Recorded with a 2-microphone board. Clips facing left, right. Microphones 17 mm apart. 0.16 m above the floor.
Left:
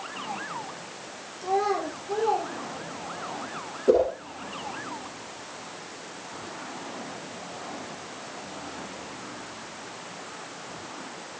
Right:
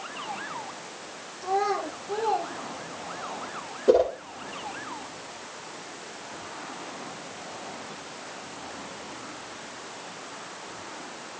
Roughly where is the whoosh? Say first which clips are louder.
Right 1 dB; right.